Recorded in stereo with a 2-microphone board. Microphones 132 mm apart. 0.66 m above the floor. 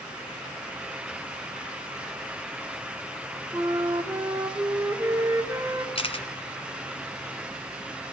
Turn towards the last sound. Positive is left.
turn(degrees=45)  # may be behind; listen again after turning